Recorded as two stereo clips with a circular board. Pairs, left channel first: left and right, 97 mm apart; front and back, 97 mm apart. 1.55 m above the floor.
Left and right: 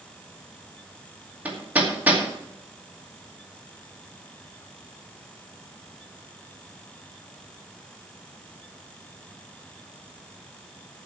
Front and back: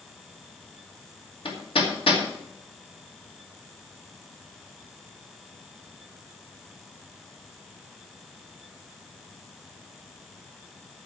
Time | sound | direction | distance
1.4 | hammering | 20° right | 2.5 m